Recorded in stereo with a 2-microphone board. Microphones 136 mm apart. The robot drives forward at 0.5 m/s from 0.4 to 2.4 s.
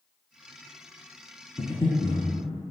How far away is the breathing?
About 0.7 m.